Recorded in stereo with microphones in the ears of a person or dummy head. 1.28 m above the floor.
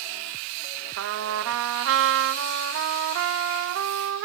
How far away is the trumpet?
About 0.7 m.